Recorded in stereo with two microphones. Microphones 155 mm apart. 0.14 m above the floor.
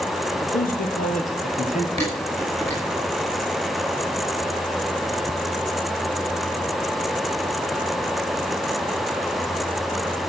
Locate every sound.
0.4 s a man speaking: 65° left (ahead or behind), 4 m; by 1.9 s 55° left (ahead or behind), 3 m
2.0 s dishes clattering: 40° right (ahead or behind), 8.5 m